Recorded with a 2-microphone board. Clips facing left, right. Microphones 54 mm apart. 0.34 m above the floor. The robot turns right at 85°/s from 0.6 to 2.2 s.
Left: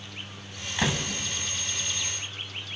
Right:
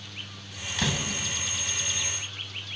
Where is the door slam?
20° left (ahead or behind), 1.7 m; by 1.1 s 40° left (ahead or behind), 1.7 m.